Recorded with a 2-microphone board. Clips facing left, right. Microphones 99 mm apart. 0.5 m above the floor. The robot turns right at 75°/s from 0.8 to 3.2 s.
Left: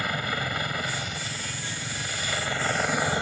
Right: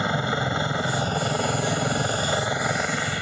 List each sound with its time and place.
0.0 s a helicopter: 155° right; by 3.2 s 25° left